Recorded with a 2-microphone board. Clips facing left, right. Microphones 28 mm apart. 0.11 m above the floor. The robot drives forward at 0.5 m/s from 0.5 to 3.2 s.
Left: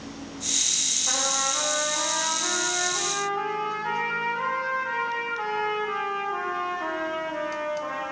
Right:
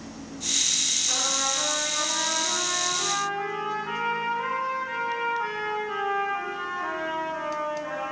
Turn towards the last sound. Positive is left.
turn(degrees=70)  # may be behind; listen again after turning